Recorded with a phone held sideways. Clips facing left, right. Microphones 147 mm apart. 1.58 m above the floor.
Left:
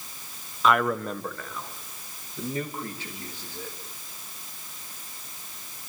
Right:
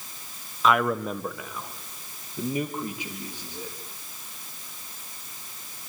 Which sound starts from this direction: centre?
A man speaking, at 0.6 s.